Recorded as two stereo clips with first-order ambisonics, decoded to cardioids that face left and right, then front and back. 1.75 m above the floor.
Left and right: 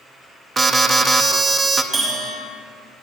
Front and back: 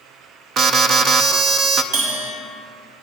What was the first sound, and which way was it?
An alarm, 150° right.